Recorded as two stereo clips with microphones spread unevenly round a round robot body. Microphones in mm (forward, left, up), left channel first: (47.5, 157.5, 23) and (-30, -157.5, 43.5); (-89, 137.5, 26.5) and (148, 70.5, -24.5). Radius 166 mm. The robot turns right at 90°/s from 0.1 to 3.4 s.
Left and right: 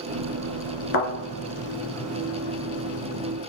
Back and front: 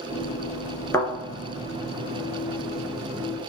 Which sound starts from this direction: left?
A thud, at 0.9 s.